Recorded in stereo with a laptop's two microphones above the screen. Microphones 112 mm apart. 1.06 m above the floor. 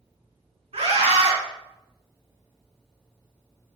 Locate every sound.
0.7 s a scream: 70° right (ahead or behind), 2 m